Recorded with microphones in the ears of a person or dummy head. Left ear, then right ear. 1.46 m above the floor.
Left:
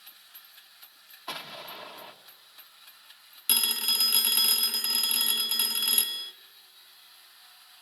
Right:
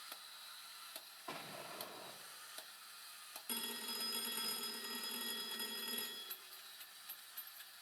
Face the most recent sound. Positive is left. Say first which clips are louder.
# left 18 dB
turn(degrees=60)  # may be behind; listen again after turning